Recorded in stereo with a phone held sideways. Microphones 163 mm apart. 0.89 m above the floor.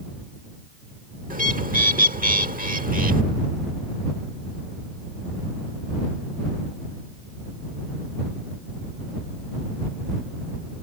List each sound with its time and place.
1.3 s a bird: 60° right (ahead or behind)